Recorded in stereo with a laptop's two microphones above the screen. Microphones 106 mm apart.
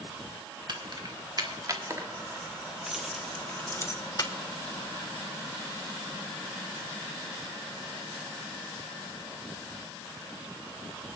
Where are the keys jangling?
50° right (ahead or behind), 1.9 m; by 4.3 s 40° left (ahead or behind), 1.2 m.